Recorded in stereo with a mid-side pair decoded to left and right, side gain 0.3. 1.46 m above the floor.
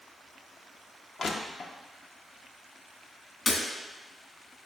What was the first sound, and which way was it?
Crushing, 65° left.